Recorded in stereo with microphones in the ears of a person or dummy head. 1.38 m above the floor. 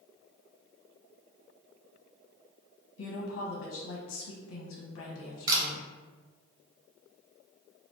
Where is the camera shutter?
25° right (ahead or behind), 0.8 m.